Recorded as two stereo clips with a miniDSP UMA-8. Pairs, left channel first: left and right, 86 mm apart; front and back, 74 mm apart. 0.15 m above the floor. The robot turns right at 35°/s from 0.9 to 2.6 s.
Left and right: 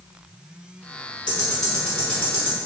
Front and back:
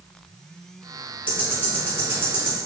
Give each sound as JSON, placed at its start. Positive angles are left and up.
{"t": 1.3, "sound": "ticking", "azimuth_deg": 155, "distance_m": 1.3}